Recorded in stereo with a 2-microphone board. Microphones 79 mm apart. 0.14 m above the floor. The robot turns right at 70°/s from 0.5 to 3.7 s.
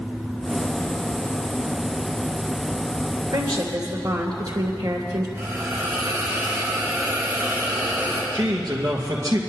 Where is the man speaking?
50° right (ahead or behind), 2.5 m.